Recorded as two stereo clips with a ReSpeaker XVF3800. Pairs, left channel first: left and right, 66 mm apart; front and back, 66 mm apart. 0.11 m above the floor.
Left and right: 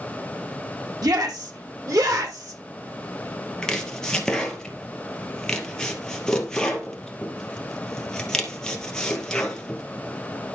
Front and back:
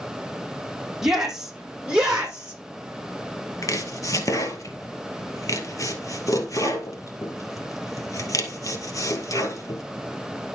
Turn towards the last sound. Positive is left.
turn(degrees=10)